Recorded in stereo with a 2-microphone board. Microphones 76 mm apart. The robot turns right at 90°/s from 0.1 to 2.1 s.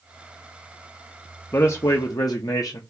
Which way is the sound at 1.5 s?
40° left.